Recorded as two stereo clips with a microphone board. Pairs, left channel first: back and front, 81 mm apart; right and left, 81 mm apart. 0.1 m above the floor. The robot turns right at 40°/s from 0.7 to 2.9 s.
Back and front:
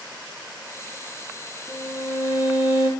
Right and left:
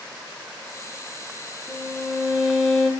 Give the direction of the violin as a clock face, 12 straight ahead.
7 o'clock.